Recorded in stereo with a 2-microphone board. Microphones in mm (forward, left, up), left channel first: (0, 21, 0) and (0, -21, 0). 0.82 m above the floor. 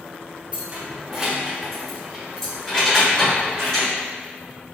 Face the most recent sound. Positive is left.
turn(degrees=20)  # may be behind; listen again after turning